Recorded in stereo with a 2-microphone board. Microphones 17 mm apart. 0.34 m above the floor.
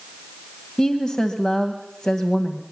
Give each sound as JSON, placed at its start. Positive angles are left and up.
{"t": 0.8, "sound": "a woman speaking", "side_deg": 40, "distance_m": 1.8}